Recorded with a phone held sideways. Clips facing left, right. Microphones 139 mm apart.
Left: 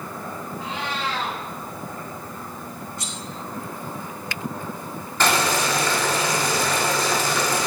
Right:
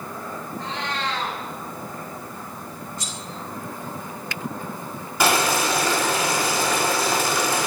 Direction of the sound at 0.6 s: 5° left (ahead or behind).